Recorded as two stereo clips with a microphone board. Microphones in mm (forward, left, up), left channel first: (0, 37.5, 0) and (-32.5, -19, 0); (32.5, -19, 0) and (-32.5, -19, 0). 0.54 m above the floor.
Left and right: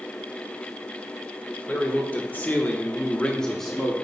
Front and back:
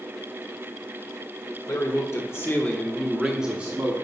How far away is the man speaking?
About 1.3 m.